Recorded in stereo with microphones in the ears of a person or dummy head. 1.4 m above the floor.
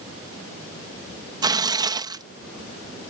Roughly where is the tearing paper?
Centre.